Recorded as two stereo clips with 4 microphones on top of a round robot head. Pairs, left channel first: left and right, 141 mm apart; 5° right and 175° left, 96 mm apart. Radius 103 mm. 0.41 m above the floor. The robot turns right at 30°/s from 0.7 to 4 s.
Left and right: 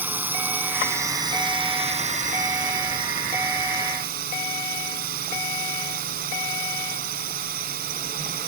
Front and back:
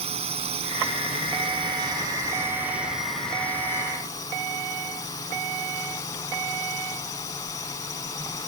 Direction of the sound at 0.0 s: 165° right.